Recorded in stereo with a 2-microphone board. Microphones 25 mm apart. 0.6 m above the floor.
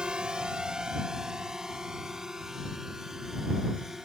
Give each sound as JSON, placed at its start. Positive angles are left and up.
{"t": 0.0, "sound": "a drone", "side_deg": -35}